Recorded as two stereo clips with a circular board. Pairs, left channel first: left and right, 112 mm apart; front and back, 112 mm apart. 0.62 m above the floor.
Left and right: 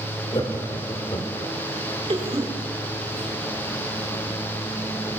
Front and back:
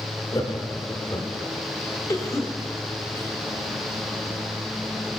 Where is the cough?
60° right, 4 m.